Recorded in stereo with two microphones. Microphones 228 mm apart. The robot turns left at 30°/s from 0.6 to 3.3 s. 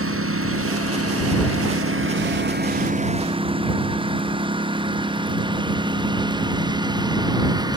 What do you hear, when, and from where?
0.0 s a lawn mower: 70° right (ahead or behind); by 7.8 s 15° right (ahead or behind)